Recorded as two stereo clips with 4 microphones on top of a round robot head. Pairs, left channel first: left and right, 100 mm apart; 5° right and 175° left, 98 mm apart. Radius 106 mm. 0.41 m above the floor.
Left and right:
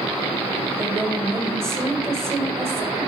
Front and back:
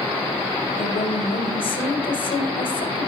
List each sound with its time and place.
0.7 s a woman speaking: 25° right, 2 m